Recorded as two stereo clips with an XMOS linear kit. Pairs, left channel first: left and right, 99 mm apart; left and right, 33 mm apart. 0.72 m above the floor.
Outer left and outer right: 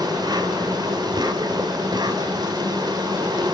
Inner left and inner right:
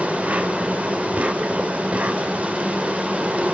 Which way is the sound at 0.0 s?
45° right (ahead or behind).